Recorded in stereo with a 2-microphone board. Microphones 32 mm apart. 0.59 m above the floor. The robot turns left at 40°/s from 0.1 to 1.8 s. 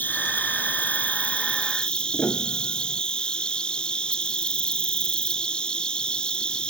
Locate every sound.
0.0 s an insect: 100° left; by 6.7 s 30° left
2.1 s a piano: 75° left (ahead or behind)